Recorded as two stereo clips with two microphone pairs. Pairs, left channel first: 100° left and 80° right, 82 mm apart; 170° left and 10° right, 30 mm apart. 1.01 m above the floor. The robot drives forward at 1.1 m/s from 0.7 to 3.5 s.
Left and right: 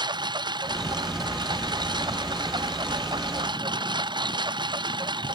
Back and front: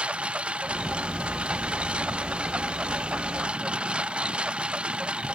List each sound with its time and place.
0.0 s a lawn mower: 55° right; by 5.4 s 60° right